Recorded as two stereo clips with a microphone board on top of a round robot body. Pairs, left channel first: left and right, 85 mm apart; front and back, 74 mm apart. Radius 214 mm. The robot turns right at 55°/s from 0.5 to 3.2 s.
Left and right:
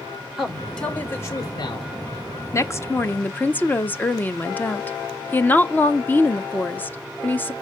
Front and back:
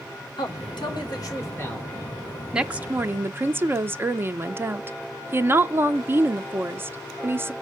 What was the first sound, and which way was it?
A man speaking, 5° right.